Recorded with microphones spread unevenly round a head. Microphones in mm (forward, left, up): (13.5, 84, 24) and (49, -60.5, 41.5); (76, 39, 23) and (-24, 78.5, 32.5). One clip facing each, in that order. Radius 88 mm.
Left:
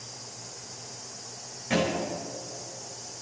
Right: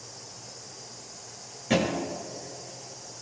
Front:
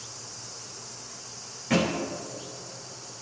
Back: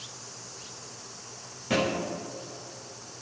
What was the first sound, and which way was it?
A thud, 130° right.